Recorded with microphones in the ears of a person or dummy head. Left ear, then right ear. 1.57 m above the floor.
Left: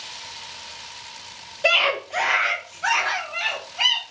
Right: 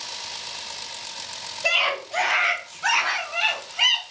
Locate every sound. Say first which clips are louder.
1.6 s a scream: left 3 dB; 20° left (ahead or behind), 0.6 m; by 4.0 s centre (ahead or behind), 1.5 m